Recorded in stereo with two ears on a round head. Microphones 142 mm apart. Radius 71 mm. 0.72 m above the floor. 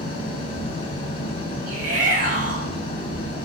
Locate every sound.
0.0 s an engine running: 35° left (ahead or behind), 4.5 m
1.7 s a shout: 55° right (ahead or behind), 5.5 m